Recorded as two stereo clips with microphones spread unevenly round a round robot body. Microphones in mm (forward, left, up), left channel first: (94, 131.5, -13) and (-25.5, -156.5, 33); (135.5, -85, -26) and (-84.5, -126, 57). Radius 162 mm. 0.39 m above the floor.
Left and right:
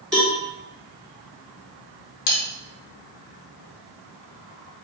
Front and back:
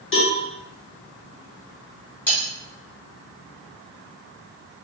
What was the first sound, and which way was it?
A cowbell, 20° right.